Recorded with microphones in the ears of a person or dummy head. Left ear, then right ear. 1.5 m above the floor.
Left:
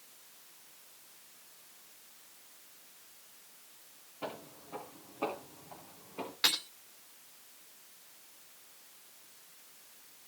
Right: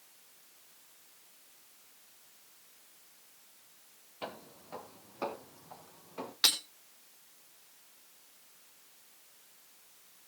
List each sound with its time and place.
4.2 s footsteps: 60° right (ahead or behind), 3 m; by 6.3 s 75° right (ahead or behind), 5.5 m
6.4 s breaking glass: 30° right (ahead or behind), 3 m